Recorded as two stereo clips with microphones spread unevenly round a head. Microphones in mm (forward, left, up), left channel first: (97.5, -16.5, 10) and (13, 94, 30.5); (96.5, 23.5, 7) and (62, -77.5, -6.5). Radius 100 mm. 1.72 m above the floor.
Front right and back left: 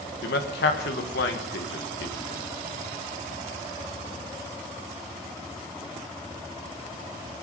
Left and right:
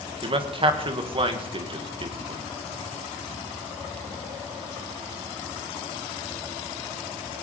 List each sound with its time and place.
0.2 s a man speaking: 70° right, 1.6 m